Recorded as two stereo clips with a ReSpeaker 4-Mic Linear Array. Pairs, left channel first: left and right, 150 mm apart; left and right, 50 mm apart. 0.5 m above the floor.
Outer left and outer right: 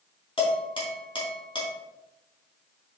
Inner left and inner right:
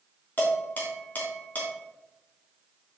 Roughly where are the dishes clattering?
Left.